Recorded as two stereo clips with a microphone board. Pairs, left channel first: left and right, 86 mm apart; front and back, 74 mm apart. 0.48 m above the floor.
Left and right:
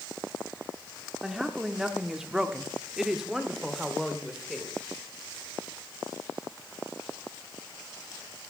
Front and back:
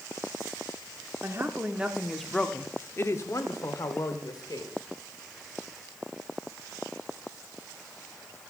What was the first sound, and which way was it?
A woman speaking, 170° right.